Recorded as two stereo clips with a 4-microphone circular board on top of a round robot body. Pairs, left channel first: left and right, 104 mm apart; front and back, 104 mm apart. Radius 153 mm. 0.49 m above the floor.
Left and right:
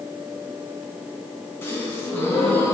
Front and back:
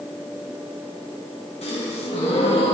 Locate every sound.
1.6 s a gasp: 20° left, 3.5 m